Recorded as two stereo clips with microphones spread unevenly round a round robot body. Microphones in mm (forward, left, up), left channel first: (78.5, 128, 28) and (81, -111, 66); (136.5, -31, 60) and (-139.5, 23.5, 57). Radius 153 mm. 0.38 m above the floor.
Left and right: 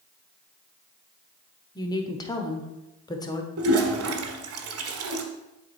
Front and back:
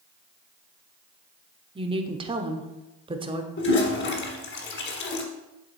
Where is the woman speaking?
120° left, 0.9 m.